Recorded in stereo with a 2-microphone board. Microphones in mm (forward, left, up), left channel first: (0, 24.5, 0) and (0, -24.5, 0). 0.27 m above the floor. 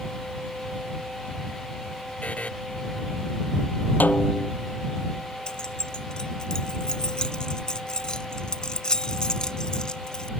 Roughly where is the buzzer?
Left.